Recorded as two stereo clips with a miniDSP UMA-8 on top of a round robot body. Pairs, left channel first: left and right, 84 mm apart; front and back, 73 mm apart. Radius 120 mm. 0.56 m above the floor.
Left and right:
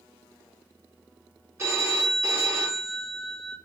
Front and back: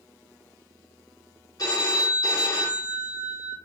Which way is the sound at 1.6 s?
30° right.